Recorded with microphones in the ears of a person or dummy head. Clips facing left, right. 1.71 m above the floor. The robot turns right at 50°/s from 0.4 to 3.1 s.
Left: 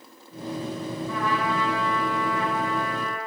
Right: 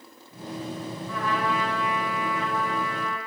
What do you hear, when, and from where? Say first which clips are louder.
1.1 s a trumpet: left 1 dB; 65° left, 5.5 m; by 3.2 s 165° left, 5.5 m